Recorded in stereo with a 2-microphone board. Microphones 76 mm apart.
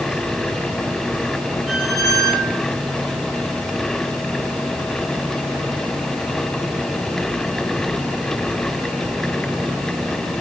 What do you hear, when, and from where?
1.7 s a squeak: 5° left (ahead or behind), 1.3 m